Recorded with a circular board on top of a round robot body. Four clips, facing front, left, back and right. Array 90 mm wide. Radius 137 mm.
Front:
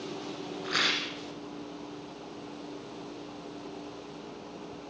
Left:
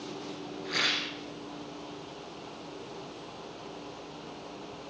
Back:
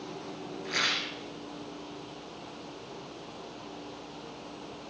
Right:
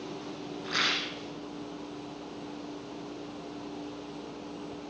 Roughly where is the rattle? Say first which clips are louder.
Right 1 dB, front 1 dB; ahead right.